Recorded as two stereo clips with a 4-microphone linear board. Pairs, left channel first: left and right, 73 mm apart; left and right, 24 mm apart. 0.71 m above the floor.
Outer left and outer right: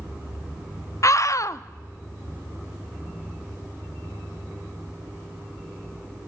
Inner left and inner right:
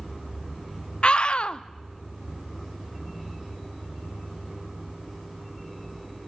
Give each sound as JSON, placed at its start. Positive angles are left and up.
{"t": 1.0, "sound": "a scream", "side_deg": 45, "distance_m": 0.7}